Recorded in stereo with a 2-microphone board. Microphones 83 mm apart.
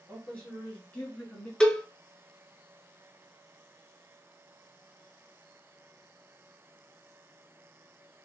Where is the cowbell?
10° left (ahead or behind), 0.7 m.